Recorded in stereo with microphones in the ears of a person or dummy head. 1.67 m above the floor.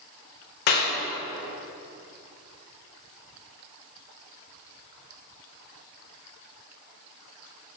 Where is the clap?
50° left (ahead or behind), 1.3 m.